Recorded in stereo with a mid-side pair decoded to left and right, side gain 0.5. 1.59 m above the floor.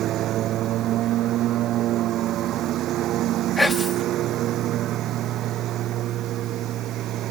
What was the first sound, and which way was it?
A lawn mower, 65° right.